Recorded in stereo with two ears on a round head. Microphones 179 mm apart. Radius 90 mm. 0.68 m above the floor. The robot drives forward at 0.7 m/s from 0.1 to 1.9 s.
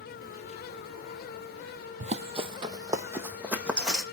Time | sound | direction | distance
2.0 | running footsteps | 35° right (ahead or behind) | 1.0 m